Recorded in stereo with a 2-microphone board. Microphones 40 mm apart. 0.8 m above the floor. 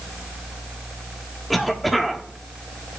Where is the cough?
Centre (ahead or behind), 1.5 m.